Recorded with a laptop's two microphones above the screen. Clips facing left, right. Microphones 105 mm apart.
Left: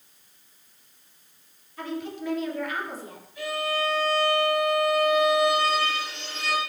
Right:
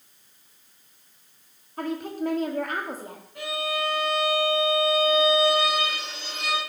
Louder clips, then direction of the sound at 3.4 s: Left 1 dB; 75° right (ahead or behind).